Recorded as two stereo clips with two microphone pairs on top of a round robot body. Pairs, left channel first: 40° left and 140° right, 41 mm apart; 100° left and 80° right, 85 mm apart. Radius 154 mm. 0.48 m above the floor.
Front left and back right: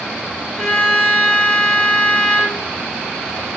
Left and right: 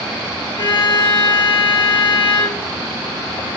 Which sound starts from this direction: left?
A violin, at 0.6 s.